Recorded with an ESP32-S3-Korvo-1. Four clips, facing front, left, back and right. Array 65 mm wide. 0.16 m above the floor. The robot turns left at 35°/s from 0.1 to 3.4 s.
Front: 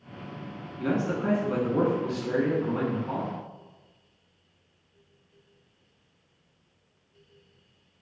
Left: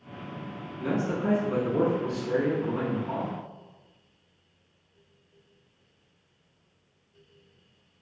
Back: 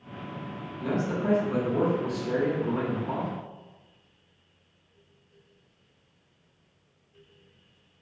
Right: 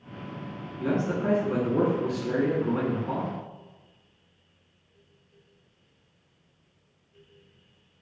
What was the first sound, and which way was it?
A man speaking, straight ahead.